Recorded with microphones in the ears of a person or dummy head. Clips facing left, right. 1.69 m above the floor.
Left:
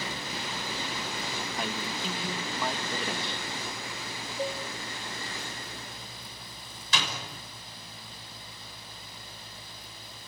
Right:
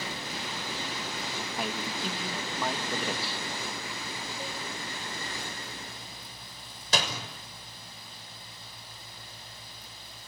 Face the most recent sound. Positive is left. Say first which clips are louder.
# right 3 dB
turn(degrees=-40)  # may be behind; listen again after turning